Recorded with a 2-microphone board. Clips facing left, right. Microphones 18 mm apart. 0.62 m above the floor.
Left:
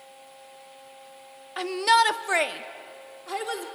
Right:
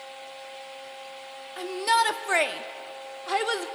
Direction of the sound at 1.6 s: 30° left (ahead or behind).